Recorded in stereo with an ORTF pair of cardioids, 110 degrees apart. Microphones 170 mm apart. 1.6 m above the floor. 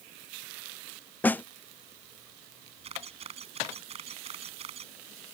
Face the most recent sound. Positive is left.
turn(degrees=-40)